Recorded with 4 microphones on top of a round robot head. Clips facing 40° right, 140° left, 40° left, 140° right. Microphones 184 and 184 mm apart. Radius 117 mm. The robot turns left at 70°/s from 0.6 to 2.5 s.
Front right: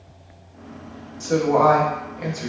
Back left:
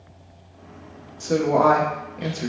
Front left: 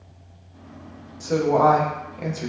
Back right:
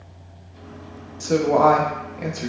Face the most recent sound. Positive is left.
turn(degrees=110)